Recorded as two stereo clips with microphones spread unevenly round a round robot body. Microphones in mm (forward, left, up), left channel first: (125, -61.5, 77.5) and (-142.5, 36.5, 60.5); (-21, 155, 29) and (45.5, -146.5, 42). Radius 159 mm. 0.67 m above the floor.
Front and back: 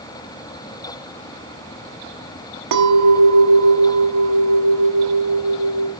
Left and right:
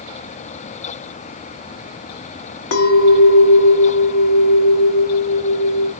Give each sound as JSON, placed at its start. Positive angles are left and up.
{"t": 2.7, "sound": "a clink", "azimuth_deg": 145, "distance_m": 1.1}